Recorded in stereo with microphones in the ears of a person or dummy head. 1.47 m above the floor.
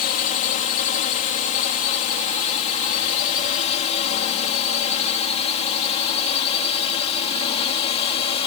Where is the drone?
40° left (ahead or behind); by 8.5 s 30° left (ahead or behind).